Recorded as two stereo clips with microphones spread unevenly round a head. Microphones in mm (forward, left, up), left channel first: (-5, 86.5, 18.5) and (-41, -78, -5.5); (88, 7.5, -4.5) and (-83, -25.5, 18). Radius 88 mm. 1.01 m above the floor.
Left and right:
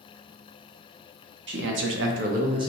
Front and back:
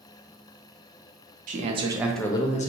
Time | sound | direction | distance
1.5 | a man speaking | 120° right | 0.8 m